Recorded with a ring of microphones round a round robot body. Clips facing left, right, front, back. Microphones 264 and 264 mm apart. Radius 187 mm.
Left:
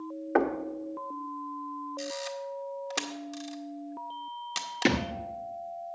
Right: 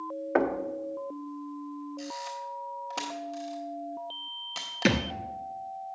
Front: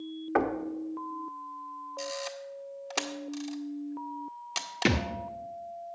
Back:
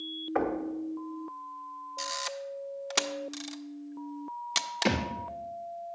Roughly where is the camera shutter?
Behind left.